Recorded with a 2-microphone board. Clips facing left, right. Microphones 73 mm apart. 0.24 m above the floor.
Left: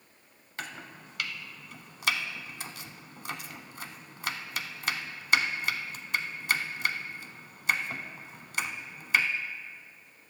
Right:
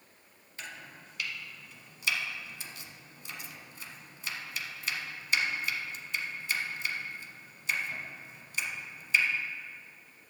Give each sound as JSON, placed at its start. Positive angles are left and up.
{"t": 0.6, "sound": "chopping", "side_deg": 65, "distance_m": 0.7}